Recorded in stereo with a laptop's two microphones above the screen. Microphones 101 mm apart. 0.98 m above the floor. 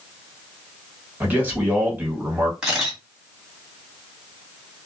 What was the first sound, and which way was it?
A man speaking, 20° right (ahead or behind).